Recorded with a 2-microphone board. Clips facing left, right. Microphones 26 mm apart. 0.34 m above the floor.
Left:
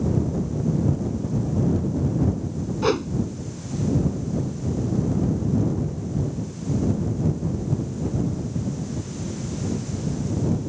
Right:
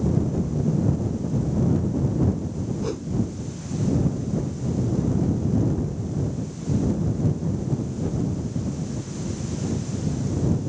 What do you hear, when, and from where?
2.8 s a whoosh: 55° left (ahead or behind)